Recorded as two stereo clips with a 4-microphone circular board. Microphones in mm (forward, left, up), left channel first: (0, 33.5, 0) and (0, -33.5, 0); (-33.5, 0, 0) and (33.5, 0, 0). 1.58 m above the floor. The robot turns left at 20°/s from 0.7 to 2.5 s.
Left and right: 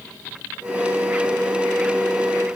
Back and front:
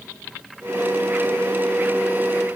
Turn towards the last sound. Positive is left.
No sound to turn to.